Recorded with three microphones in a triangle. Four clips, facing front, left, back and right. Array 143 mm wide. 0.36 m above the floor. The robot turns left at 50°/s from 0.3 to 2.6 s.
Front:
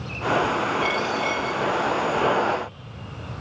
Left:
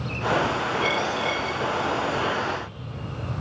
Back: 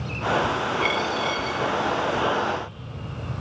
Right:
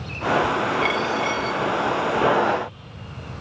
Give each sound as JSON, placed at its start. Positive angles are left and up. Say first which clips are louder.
{"t": 0.8, "sound": "a dropped coin", "louder": "right 2 dB, even", "azimuth_deg": -120, "distance_m": 9.0}